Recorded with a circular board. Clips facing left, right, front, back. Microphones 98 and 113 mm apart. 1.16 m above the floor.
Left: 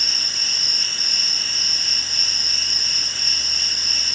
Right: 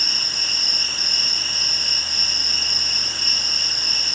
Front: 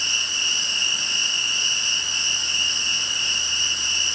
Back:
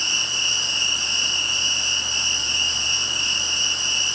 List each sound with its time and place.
0.0 s an insect: 120° right, 6.5 m